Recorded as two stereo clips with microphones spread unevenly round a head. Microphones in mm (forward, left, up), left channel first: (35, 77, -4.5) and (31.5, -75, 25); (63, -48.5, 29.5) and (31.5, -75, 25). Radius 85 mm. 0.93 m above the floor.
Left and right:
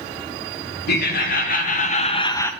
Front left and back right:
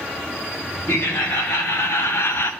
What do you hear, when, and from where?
0.9 s laughter: 85° left, 1.3 m; by 2.5 s 25° left, 0.5 m